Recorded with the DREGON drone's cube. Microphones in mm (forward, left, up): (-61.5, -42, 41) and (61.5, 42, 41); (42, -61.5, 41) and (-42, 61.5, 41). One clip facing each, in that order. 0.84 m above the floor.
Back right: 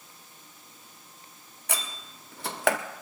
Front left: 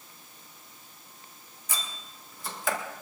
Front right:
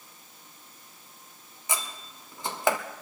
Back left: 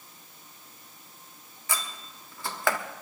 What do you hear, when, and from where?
1.7 s a door slam: 125° right, 1.0 m